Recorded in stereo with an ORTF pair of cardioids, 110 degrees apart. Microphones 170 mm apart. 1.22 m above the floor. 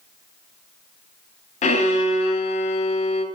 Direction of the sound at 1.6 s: 45° left.